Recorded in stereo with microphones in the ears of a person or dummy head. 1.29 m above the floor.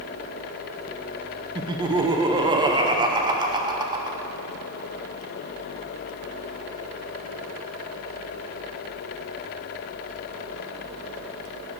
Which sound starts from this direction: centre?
Laughter, at 1.6 s.